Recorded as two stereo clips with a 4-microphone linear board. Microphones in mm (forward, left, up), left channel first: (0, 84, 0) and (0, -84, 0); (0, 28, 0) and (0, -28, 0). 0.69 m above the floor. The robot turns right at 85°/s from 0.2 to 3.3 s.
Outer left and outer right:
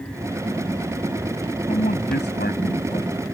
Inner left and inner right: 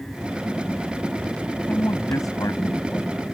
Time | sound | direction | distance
1.7 | a man speaking | 35° left (ahead or behind) | ?